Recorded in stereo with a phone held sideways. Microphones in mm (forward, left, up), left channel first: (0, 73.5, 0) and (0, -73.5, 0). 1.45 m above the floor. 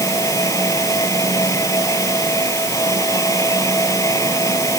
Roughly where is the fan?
Left.